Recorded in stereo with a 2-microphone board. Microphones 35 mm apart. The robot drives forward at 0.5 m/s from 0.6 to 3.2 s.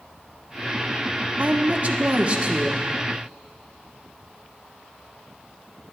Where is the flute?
No flute in this recording.